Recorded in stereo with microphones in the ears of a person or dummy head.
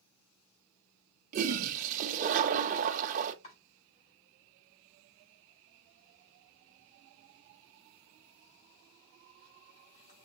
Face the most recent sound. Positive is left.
turn(degrees=35)  # may be behind; listen again after turning